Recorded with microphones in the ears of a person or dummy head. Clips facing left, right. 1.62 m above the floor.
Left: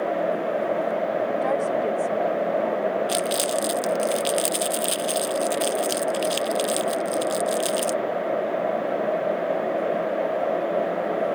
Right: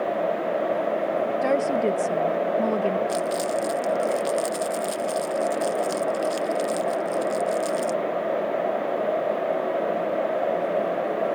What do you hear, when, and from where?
1.4 s a woman speaking: 35° right (ahead or behind); by 3.0 s 55° right (ahead or behind)
3.1 s crumpling: 75° left (ahead or behind)